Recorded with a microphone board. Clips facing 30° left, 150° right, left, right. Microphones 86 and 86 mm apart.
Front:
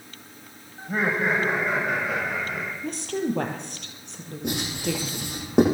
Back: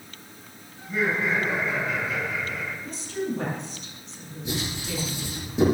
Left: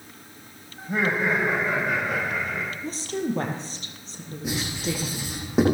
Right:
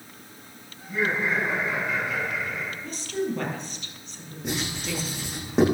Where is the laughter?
70° left, 9 m; by 2.7 s 55° left, 7.5 m.